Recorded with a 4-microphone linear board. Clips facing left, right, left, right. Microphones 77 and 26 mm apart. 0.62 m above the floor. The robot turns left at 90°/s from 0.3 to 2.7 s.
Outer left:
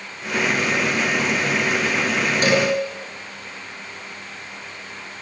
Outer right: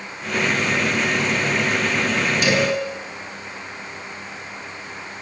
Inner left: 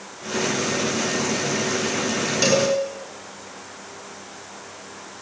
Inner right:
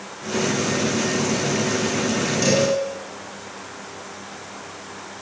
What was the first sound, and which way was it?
A cowbell, 40° left (ahead or behind).